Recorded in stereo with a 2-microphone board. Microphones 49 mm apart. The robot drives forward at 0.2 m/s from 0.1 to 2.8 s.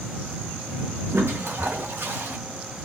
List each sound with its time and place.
1.1 s a toilet flushing: 60° right (ahead or behind), 0.7 m; by 2.4 s 50° right (ahead or behind), 0.8 m